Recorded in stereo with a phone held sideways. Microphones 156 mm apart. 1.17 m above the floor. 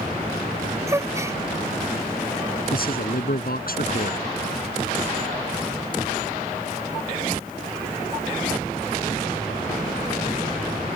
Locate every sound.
0.9 s a gasp: 20° right (ahead or behind)
2.7 s a man speaking: 70° left (ahead or behind)